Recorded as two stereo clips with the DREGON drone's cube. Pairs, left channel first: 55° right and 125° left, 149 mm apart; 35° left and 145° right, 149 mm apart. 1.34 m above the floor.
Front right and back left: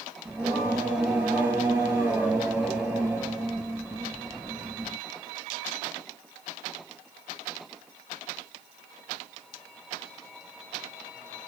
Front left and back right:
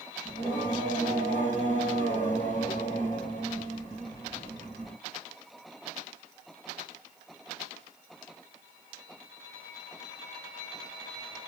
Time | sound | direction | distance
0.2 | singing | 155° right | 1.7 m